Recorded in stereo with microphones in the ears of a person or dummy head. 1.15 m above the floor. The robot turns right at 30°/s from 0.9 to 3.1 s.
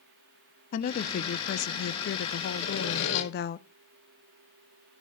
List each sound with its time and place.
0.7 s a woman speaking: 50° left, 0.5 m; by 3.6 s 115° left, 0.5 m
2.6 s sawing: 50° left (ahead or behind), 3.5 m; by 3.2 s 65° left (ahead or behind), 3.5 m